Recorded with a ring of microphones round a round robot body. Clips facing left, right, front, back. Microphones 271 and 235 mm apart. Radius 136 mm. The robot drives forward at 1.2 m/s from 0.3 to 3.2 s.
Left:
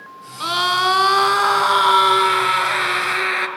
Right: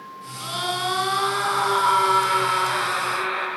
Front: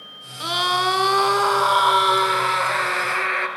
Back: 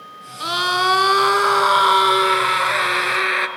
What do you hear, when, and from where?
0.4 s a scream: 95° left, 3.5 m; by 3.5 s 135° left, 5 m